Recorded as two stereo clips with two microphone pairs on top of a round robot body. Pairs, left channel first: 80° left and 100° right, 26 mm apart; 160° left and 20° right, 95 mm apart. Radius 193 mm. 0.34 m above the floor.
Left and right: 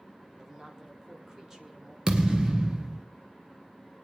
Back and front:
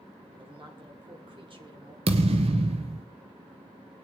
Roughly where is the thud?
Ahead right.